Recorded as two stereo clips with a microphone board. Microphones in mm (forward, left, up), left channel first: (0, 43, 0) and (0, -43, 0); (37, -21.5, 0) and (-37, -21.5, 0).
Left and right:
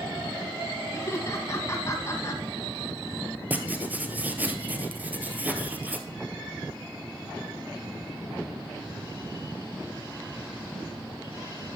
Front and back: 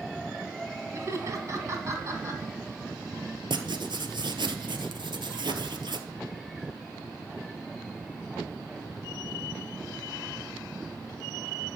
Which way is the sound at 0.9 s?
140° left.